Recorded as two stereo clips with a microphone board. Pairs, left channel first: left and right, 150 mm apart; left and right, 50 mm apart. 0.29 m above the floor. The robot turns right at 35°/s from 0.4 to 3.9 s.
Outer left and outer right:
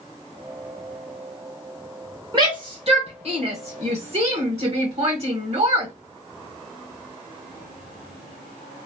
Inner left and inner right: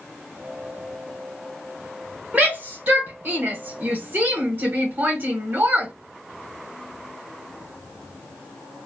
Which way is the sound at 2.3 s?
30° right (ahead or behind).